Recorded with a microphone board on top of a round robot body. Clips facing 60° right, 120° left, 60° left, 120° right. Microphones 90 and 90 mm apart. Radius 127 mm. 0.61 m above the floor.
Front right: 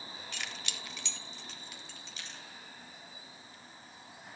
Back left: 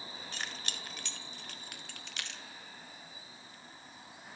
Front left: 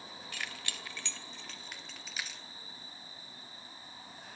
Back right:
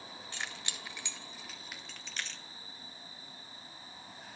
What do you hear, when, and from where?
0.3 s keys jangling: 175° left, 2.5 m; by 2.4 s 140° left, 1.9 m